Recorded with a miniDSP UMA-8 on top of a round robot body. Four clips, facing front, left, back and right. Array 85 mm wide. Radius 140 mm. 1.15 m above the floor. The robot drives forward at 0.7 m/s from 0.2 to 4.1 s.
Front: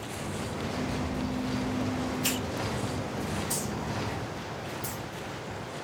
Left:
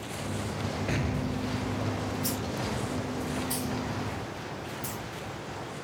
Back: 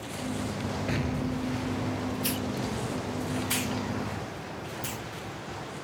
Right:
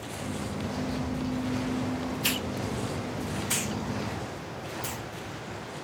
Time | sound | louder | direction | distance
0.9 | an explosion | even, back 1 dB | 125° left | ?
2.2 | a hiss | right 1 dB, back 1 dB | 75° right | ?